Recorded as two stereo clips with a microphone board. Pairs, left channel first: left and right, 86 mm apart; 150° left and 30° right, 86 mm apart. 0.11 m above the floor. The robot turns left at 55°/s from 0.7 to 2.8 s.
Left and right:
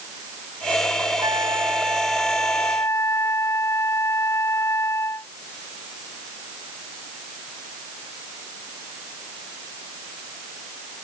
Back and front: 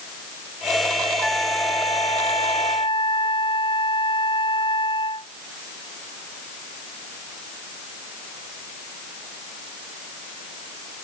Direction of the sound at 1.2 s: 125° right.